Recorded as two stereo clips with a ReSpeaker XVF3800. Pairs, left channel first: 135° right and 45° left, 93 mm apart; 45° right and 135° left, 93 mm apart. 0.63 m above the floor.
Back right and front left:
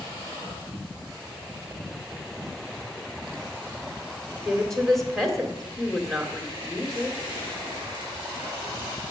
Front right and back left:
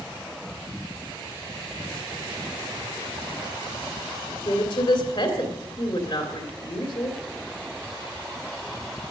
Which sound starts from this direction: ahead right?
A woman speaking, at 4.5 s.